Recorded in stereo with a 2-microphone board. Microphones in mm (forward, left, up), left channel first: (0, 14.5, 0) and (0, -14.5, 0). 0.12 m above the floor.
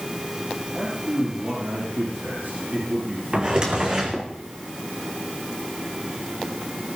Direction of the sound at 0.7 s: 75° right (ahead or behind).